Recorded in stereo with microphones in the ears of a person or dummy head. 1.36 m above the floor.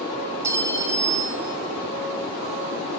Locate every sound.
0.4 s a clink: 10° right (ahead or behind), 0.9 m